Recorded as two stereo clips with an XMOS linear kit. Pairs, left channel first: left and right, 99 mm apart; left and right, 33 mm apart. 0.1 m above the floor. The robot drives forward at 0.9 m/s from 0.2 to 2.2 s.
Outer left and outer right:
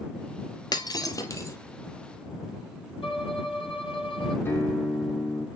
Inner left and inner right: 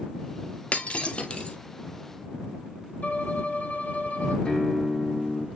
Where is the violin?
65° left (ahead or behind), 1.6 m.